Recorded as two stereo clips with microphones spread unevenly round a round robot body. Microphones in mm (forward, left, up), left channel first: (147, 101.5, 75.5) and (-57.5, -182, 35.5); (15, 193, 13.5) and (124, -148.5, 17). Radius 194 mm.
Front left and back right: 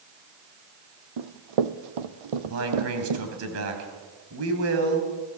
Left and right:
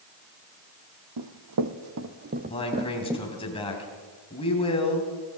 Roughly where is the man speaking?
Behind.